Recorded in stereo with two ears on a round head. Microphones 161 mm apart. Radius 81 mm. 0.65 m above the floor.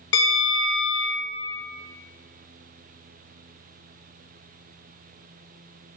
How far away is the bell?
About 0.9 m.